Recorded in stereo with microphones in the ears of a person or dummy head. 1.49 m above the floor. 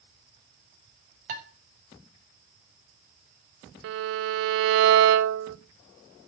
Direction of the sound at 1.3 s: 50° right (ahead or behind).